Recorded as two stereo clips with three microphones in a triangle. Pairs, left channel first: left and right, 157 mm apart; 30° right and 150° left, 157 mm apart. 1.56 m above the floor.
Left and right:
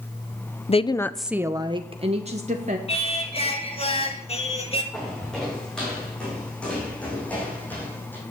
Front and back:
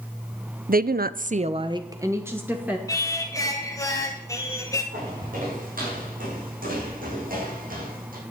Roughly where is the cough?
I don't hear a cough.